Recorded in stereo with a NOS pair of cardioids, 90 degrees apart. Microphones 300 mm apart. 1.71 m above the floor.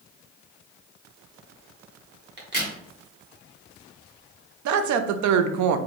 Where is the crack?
35° right, 1.5 m.